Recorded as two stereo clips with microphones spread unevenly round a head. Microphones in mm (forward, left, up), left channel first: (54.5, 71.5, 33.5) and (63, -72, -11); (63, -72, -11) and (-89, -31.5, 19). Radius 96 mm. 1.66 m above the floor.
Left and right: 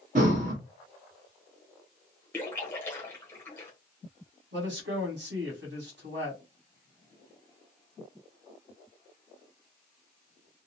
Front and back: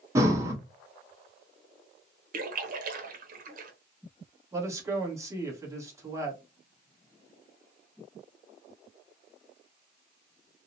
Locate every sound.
0.1 s breathing: 140° right, 0.8 m
2.3 s a splash: 160° left, 0.6 m
4.5 s a man speaking: 130° right, 1.4 m